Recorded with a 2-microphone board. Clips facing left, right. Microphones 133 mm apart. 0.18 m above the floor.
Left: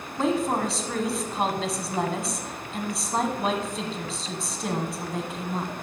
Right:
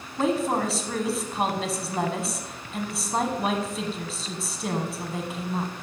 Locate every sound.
0.2 s a woman speaking: centre (ahead or behind), 1.1 m